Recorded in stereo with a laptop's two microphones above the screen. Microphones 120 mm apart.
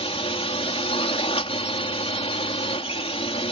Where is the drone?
55° left (ahead or behind).